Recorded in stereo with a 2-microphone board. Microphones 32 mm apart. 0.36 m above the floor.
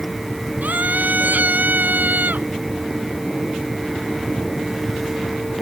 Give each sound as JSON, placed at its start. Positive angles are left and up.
{"t": 0.6, "sound": "a scream", "side_deg": -60}